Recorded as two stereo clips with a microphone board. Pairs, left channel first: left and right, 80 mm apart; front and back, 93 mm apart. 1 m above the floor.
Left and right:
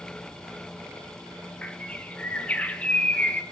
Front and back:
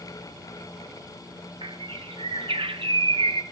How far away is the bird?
About 0.6 m.